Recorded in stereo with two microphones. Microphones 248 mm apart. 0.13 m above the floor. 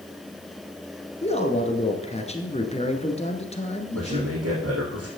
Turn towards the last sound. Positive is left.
turn(degrees=-70)  # may be behind; listen again after turning